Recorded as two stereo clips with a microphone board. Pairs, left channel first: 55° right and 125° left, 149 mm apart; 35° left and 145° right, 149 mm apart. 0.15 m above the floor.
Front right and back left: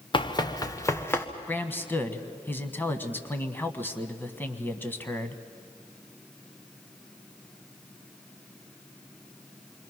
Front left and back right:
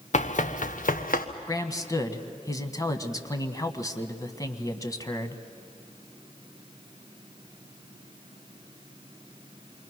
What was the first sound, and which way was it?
Running footsteps, straight ahead.